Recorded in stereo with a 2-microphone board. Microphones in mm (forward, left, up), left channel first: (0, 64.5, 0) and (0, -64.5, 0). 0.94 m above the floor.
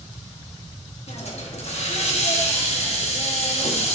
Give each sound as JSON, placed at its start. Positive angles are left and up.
{"t": 1.1, "sound": "a hiss", "side_deg": 55, "distance_m": 1.1}